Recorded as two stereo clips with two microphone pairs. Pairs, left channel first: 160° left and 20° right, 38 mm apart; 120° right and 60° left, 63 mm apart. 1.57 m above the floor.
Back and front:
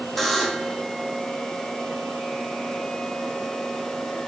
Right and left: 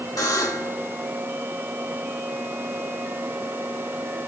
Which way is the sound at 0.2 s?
120° right.